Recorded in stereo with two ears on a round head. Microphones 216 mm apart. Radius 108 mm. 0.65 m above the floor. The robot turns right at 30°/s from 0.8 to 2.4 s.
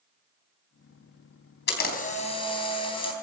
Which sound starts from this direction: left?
A camera shutter, at 1.7 s.